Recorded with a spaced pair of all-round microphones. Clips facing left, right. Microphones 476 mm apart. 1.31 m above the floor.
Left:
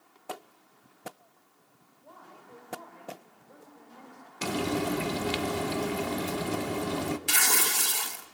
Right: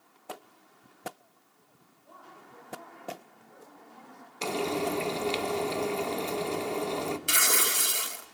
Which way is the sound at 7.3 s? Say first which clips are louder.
Right 1 dB; 10° left (ahead or behind).